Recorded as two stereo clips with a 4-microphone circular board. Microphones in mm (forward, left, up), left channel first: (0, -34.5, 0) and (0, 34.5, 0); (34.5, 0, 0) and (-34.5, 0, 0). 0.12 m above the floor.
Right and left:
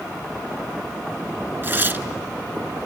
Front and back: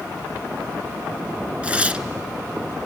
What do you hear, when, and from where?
1.6 s tearing paper: 120° left, 0.6 m